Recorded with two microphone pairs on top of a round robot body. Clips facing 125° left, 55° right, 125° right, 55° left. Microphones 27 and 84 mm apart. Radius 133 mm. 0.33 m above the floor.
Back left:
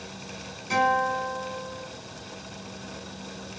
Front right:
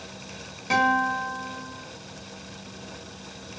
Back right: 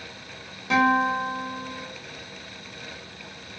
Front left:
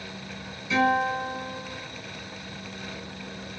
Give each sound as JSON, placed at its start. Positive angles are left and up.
{"t": 0.7, "sound": "a guitar", "azimuth_deg": -100, "distance_m": 2.5}